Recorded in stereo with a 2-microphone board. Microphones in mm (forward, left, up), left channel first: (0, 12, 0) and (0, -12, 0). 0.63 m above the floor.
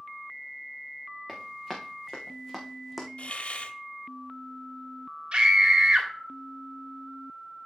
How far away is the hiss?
About 0.7 m.